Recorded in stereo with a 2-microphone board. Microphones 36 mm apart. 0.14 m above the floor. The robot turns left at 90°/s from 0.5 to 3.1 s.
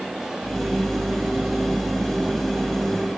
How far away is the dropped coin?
No dropped coin in this recording.